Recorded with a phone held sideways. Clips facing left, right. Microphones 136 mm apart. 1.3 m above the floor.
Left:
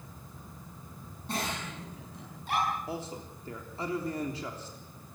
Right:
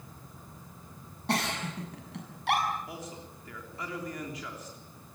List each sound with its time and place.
1.3 s a giggle: 80° right, 7.5 m
2.9 s a man speaking: 30° left (ahead or behind), 3.5 m